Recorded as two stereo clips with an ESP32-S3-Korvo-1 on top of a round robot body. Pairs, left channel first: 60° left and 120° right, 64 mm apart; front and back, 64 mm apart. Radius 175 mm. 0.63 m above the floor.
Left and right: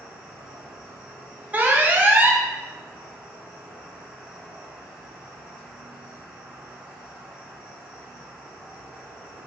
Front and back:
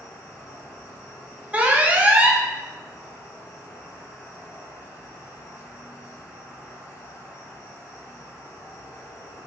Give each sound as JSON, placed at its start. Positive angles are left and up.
{"t": 0.0, "sound": "an insect", "azimuth_deg": -45, "distance_m": 0.8}
{"t": 1.5, "sound": "an alarm", "azimuth_deg": -145, "distance_m": 0.7}